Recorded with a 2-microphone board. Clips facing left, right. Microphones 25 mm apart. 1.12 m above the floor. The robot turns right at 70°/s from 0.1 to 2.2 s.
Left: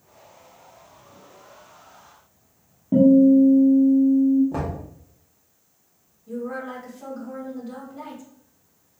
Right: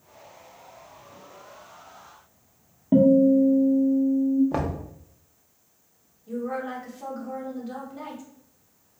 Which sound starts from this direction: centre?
A woman speaking, at 6.3 s.